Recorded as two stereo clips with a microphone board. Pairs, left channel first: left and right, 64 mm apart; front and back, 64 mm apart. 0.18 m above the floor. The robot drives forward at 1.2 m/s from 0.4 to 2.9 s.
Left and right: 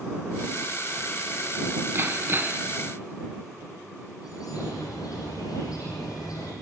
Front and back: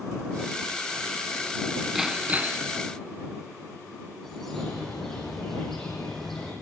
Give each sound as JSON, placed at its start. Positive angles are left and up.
{"t": 1.9, "sound": "hammering", "azimuth_deg": -95, "distance_m": 1.4}
{"t": 4.2, "sound": "a bird", "azimuth_deg": 85, "distance_m": 9.5}